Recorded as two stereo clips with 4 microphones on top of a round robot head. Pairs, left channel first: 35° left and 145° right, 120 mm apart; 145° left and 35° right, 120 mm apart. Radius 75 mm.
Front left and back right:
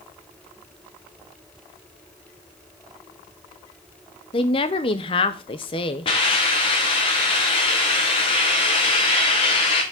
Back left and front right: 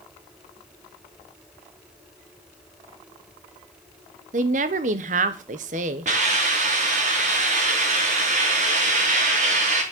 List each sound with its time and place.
4.3 s a woman speaking: 10° right, 1.1 m
6.0 s a hiss: 10° right, 4 m